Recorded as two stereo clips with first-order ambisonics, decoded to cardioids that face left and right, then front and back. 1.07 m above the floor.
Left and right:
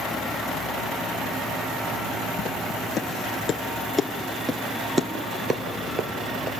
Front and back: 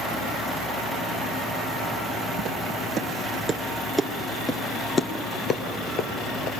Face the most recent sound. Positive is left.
turn(degrees=-40)